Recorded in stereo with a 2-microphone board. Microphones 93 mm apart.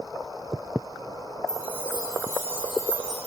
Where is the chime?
25° left (ahead or behind), 2.5 m.